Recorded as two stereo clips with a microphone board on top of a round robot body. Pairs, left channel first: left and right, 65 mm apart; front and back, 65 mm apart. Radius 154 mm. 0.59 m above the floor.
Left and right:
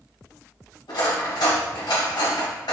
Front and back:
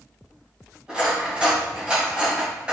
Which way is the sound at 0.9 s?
105° left.